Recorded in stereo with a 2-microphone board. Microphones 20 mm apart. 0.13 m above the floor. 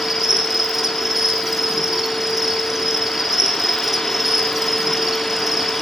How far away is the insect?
About 5 m.